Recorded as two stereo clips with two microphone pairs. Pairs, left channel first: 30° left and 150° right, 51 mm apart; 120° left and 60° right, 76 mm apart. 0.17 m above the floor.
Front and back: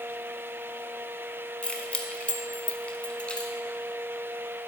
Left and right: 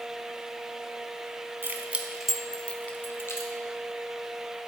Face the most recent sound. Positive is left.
turn(degrees=90)